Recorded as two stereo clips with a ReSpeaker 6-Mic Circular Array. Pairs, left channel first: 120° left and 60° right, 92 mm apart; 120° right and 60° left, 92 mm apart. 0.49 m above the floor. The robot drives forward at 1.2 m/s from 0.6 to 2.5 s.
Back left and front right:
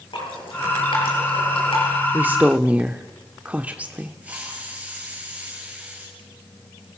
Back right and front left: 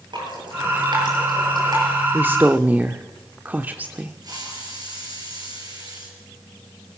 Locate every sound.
0.1 s dripping: 95° left, 7.5 m; by 1.9 s 105° left, 8 m
2.1 s a woman speaking: straight ahead, 1.4 m; by 4.2 s 5° left, 1.1 m
4.2 s a hiss: 15° left, 6.5 m